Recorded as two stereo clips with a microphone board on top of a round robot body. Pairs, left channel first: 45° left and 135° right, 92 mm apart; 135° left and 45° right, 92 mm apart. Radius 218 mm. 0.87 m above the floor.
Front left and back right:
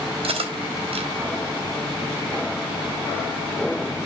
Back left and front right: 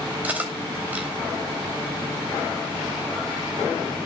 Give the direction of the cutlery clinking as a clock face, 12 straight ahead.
4 o'clock.